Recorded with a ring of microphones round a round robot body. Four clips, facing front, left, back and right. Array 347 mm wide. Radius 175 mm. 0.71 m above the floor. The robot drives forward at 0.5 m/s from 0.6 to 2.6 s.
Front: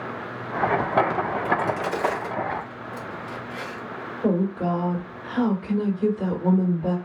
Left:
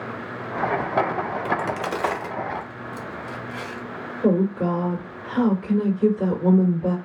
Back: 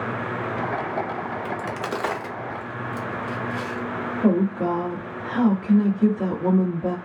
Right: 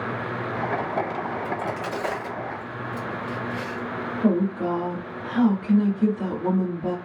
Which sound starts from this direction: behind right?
A woman speaking, at 4.2 s.